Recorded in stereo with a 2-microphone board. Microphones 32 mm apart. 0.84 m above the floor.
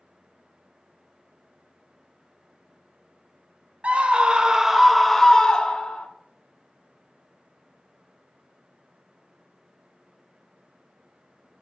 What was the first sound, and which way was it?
A scream, 45° right (ahead or behind).